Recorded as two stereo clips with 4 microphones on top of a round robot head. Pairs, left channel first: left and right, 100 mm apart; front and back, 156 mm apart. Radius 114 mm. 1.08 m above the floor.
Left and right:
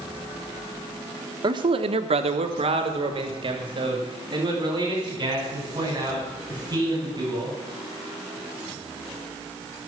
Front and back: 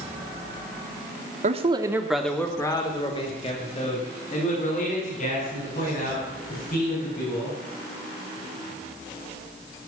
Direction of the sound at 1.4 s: 135° right.